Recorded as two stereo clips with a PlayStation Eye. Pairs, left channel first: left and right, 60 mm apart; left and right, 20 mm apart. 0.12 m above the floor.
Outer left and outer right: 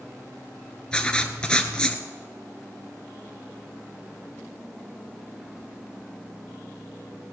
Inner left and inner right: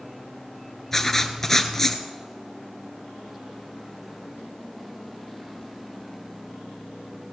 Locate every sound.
0.9 s writing: 15° left (ahead or behind), 1.1 m